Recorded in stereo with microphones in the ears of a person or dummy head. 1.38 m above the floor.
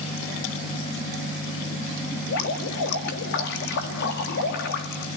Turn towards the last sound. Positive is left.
turn(degrees=55)  # may be behind; listen again after turning